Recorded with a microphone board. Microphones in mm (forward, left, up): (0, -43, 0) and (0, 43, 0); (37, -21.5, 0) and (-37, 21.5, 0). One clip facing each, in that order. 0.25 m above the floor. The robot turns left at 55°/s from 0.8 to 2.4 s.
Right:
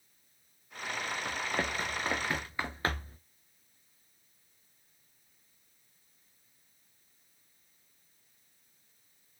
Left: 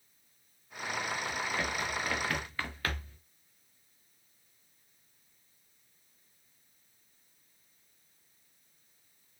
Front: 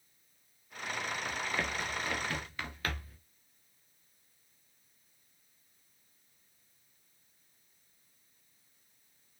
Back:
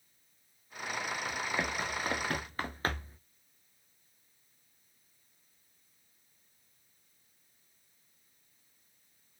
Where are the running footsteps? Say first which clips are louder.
Even, back 1 dB; 125° right, 2.5 m; by 3.2 s 140° right, 1.4 m.